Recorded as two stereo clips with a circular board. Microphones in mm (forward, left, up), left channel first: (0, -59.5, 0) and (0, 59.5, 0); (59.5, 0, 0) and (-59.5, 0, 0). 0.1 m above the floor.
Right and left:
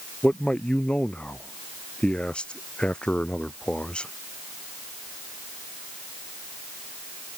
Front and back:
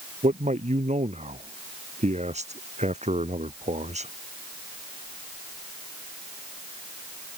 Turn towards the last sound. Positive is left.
turn(degrees=-170)